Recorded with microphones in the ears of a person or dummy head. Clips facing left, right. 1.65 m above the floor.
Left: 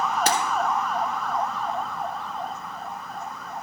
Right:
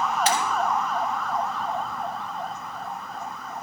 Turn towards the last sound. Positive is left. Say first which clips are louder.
# even
turn(degrees=40)  # may be behind; listen again after turning